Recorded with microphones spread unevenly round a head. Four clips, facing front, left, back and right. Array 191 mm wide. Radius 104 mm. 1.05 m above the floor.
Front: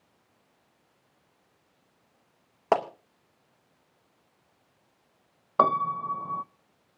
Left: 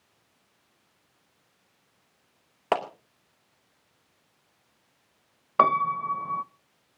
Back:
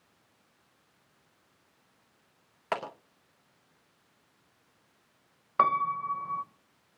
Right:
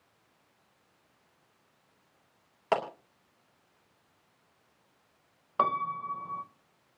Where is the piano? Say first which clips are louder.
Left 7 dB, front 2 dB; 35° left, 0.6 m.